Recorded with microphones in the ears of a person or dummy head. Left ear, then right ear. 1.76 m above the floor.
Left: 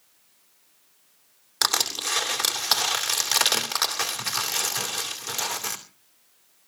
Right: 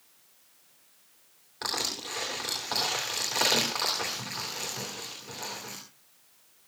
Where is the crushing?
65° left (ahead or behind), 2.5 m.